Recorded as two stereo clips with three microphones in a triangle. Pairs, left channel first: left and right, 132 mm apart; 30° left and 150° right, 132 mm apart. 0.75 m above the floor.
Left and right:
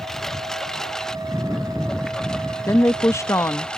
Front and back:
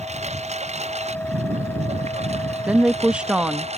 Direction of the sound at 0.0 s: 175° left.